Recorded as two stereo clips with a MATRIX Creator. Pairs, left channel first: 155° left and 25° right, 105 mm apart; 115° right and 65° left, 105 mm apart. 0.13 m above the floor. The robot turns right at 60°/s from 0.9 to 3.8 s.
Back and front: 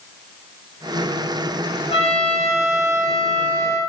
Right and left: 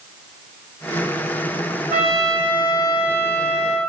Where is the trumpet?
140° left, 1.3 m; by 3.8 s 110° right, 1.3 m.